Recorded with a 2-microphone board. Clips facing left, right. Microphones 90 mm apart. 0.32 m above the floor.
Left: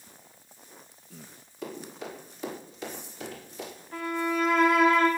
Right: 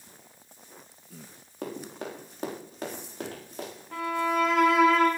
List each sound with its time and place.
1.6 s running footsteps: 50° right (ahead or behind), 9 m
3.9 s a violin: 75° right (ahead or behind), 7 m